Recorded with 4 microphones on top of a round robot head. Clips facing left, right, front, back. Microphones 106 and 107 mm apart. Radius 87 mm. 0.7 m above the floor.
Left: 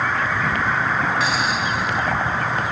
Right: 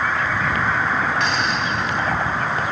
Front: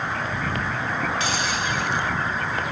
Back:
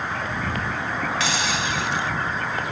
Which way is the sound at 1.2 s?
Straight behind.